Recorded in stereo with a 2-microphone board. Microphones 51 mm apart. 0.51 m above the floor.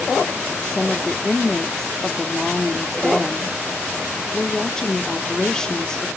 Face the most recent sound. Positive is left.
turn(degrees=15)  # may be behind; listen again after turning